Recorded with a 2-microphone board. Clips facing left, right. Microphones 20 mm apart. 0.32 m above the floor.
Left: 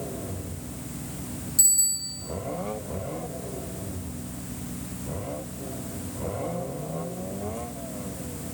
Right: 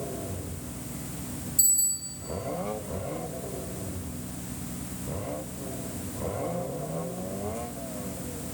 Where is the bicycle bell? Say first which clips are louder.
Left 3 dB; 50° left (ahead or behind), 3.5 m.